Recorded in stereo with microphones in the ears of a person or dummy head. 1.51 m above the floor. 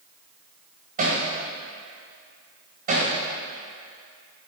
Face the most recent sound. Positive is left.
turn(degrees=-50)  # may be behind; listen again after turning